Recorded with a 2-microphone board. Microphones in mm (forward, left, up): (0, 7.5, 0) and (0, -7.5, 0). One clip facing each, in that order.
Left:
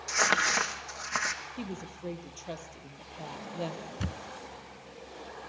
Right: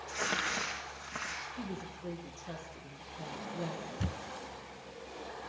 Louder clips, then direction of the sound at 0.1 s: Left 8 dB; 60° left (ahead or behind).